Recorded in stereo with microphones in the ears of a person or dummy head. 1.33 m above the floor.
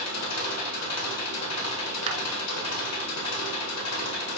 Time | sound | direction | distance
0.0 | an engine running | 80° left | 1.2 m
2.1 | a clap | 30° right (ahead or behind) | 0.8 m